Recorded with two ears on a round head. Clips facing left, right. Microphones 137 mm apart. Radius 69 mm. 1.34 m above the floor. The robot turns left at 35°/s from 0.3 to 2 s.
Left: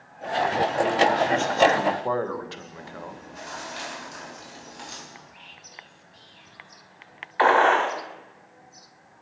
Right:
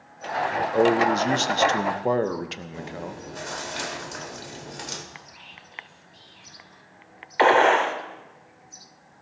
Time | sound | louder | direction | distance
0.7 | a man speaking | right 4 dB | 110° right | 0.8 m
2.7 | chewing | right 4 dB | 60° right (ahead or behind) | 1.8 m
5.1 | whispering | right 1 dB | centre (ahead or behind) | 1.1 m
7.4 | a gunshot | right 1 dB | 25° right (ahead or behind) | 1.4 m